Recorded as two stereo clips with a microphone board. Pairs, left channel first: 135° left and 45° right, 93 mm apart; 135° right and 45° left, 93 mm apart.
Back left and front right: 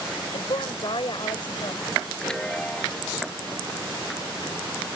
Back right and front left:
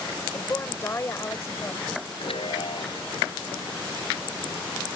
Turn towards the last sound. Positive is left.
turn(degrees=-145)